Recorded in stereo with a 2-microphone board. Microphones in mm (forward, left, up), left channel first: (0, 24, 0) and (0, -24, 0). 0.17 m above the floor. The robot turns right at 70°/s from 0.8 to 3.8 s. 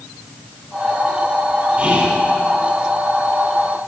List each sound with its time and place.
1.8 s whispering: 20° right (ahead or behind), 1.6 m; by 2.2 s 10° right (ahead or behind), 1.6 m